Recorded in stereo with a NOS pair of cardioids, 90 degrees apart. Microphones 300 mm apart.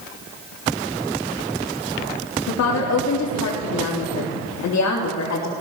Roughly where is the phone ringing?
No phone ringing in this recording.